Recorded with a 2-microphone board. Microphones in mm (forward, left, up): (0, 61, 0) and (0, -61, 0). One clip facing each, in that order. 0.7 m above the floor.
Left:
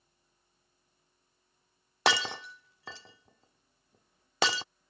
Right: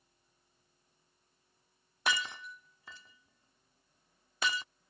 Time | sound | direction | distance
2.1 | breaking glass | 80° left | ?